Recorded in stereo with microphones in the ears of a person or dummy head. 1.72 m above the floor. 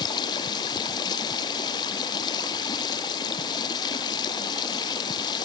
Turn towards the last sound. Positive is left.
turn(degrees=20)  # may be behind; listen again after turning